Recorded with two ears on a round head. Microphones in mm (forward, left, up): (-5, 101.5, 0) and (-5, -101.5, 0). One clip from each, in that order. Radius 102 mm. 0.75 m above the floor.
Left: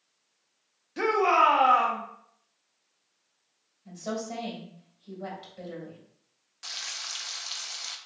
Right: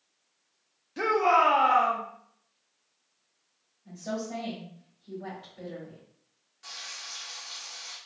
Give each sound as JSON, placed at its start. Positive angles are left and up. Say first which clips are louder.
{"t": 1.0, "sound": "a shout", "louder": "left 1 dB", "side_deg": 5, "distance_m": 0.6}
{"t": 3.9, "sound": "a woman speaking", "louder": "left 1 dB", "side_deg": 55, "distance_m": 1.7}
{"t": 6.6, "sound": "frying", "louder": "left 4 dB", "side_deg": 40, "distance_m": 0.5}